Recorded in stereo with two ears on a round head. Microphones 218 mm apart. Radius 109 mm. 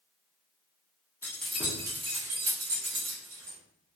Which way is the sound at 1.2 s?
10° left (ahead or behind).